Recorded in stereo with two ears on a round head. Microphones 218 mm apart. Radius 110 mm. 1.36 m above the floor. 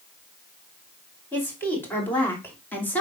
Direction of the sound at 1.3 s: 10° left (ahead or behind).